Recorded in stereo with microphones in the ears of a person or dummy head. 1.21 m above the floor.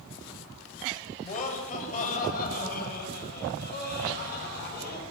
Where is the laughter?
40° left (ahead or behind), 5.5 m; by 5.0 s 55° left (ahead or behind), 9.5 m.